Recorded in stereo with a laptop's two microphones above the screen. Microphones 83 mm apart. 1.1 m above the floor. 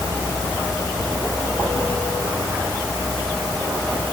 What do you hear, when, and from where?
Only background noise.